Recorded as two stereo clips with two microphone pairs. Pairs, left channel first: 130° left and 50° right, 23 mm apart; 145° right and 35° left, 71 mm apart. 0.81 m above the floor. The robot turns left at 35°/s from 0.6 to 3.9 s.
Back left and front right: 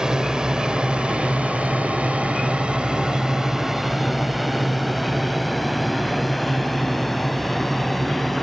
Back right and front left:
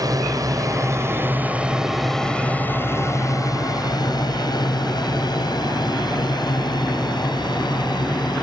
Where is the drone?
10° left; by 8.4 s 145° right.